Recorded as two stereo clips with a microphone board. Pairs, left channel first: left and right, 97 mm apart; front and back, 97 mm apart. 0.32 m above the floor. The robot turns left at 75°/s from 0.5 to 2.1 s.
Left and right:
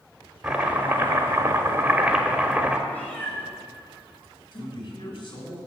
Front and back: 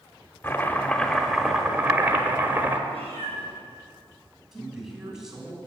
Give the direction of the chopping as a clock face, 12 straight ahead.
1 o'clock.